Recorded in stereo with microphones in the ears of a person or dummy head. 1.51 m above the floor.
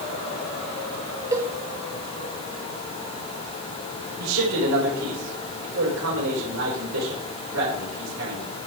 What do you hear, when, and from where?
1.3 s a cowbell: 20° right (ahead or behind), 1.4 m
4.2 s a man speaking: 90° right, 5.5 m